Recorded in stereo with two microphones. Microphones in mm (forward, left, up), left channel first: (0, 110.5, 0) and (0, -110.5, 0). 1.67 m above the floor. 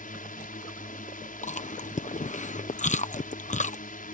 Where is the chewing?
35° left (ahead or behind).